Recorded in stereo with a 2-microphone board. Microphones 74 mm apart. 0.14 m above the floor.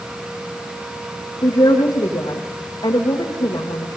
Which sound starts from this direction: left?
A woman speaking, at 1.4 s.